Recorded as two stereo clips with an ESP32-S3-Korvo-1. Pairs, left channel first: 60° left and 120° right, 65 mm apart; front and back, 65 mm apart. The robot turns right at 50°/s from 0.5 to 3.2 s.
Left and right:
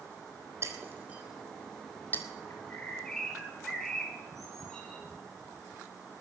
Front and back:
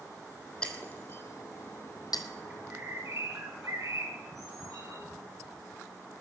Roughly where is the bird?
Left.